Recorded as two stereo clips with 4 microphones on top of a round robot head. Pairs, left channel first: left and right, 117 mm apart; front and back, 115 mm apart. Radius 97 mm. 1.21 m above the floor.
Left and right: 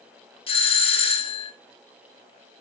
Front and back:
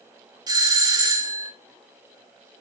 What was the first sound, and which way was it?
A doorbell, 130° left.